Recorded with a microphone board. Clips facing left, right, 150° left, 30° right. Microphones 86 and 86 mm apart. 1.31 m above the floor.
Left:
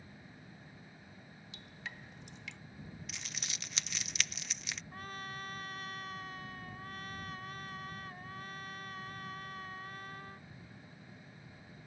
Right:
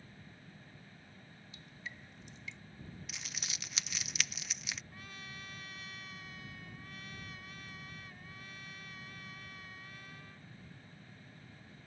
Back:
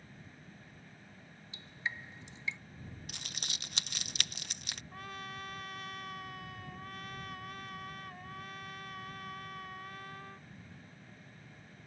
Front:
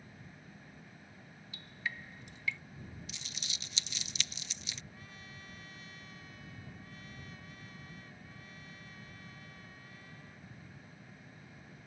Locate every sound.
1.5 s dripping: 85° left
3.1 s crumpling: straight behind
4.9 s a trumpet: 130° left